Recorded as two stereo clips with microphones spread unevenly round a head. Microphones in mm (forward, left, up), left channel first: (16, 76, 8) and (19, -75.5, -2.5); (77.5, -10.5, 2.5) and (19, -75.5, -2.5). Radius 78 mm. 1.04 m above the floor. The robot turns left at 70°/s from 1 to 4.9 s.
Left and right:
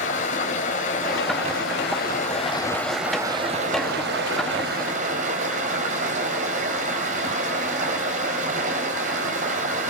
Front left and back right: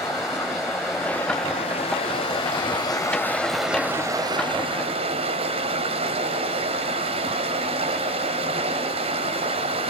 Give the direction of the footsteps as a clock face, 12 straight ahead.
No footsteps in this recording.